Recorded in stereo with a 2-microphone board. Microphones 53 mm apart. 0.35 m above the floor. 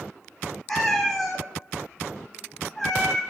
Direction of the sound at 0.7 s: 10° left (ahead or behind).